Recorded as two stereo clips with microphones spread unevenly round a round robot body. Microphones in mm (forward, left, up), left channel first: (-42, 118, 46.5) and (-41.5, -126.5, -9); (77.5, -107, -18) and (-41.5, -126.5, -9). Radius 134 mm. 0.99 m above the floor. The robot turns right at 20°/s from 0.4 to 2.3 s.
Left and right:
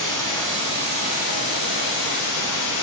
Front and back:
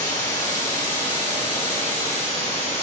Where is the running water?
15° left, 3 m; by 2.8 s 50° left, 3 m.